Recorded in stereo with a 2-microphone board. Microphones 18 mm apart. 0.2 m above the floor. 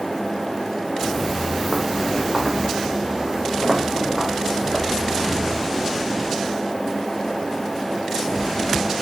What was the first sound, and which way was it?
Footsteps, 20° left (ahead or behind).